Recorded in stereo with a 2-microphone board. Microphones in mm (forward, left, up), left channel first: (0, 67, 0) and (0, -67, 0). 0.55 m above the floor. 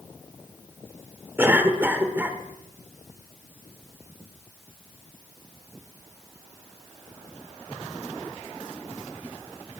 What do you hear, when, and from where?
1.4 s a cough: 15° right (ahead or behind), 1.8 m